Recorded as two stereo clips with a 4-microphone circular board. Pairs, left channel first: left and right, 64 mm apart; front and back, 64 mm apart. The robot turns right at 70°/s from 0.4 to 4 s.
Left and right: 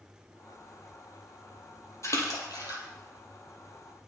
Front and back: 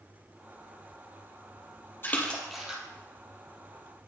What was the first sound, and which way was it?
A splash, 55° left.